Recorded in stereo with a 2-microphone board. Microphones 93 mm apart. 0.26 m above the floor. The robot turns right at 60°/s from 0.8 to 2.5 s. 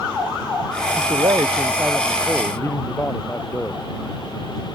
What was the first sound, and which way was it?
A man speaking, 70° right.